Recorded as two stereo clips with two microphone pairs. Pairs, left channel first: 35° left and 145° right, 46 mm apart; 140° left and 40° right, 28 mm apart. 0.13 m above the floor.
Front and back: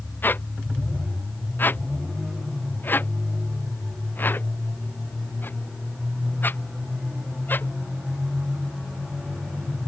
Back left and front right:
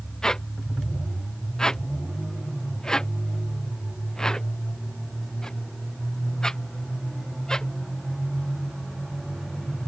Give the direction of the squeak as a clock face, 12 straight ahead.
10 o'clock.